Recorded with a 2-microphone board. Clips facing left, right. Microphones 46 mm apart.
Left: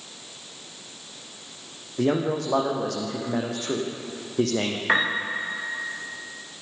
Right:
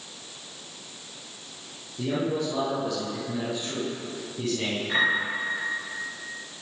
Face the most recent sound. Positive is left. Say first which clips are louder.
# left 1 dB
turn(degrees=65)  # may be behind; listen again after turning